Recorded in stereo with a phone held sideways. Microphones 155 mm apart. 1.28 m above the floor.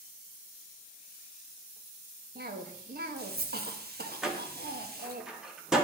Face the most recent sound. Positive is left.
turn(degrees=-5)  # may be behind; listen again after turning